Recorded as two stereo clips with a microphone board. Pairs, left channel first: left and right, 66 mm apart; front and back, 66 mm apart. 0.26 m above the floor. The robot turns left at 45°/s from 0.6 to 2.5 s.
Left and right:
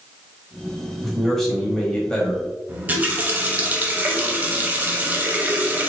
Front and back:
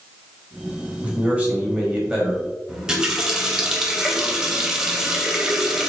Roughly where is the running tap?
Right.